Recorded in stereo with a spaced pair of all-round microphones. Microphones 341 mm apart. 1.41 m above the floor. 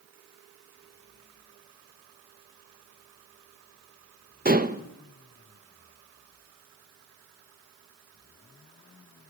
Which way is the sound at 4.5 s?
25° right (ahead or behind).